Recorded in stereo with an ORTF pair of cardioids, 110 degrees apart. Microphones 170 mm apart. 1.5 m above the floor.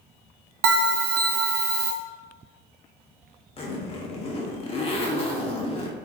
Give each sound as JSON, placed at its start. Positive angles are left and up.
{"t": 0.6, "sound": "a bell", "azimuth_deg": -65, "distance_m": 0.7}
{"t": 3.6, "sound": "a zipper", "azimuth_deg": 35, "distance_m": 0.9}